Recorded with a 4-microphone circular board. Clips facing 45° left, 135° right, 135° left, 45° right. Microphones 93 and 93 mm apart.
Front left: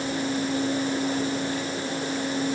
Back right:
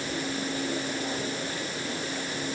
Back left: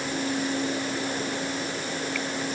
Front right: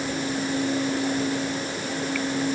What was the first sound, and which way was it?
Only background noise.